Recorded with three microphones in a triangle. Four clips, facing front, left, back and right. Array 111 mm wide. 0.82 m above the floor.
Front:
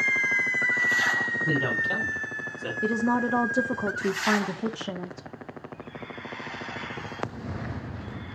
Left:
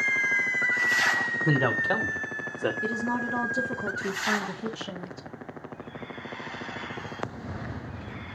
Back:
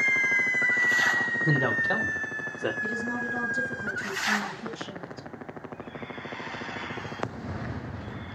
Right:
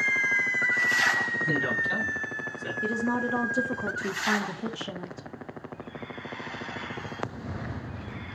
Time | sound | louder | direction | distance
1.4 | a man speaking | left 6 dB, back 2 dB | 105° left | 2.5 m
2.8 | a woman speaking | right 1 dB, front 7 dB | straight ahead | 1.7 m